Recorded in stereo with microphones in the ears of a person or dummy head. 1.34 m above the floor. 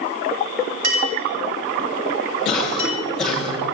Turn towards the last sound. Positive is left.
turn(degrees=5)  # may be behind; listen again after turning